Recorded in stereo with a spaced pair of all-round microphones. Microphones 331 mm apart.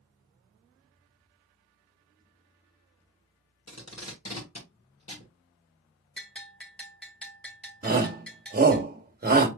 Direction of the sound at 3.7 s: 50° left (ahead or behind).